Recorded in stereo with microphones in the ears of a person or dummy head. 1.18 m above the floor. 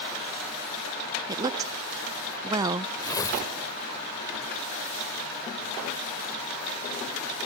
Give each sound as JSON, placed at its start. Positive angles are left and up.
{"t": 1.3, "sound": "a woman speaking", "side_deg": -20}
{"t": 3.0, "sound": "tearing paper", "side_deg": 25}